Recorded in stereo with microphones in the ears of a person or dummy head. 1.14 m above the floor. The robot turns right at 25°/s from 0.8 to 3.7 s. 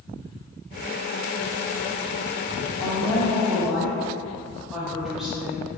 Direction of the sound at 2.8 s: 20° left (ahead or behind).